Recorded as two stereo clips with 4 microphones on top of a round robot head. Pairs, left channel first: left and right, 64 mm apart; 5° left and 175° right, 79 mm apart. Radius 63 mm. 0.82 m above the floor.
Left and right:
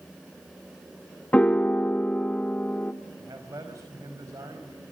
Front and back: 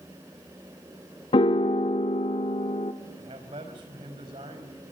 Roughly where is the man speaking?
Behind right.